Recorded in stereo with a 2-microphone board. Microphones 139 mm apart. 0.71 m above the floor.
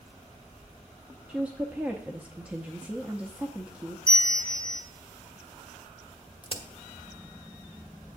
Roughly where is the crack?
Left.